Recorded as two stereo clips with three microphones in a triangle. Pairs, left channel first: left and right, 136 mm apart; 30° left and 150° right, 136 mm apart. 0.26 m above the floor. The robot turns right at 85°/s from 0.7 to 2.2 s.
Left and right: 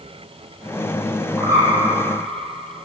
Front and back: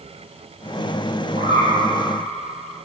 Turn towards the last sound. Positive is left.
turn(degrees=-95)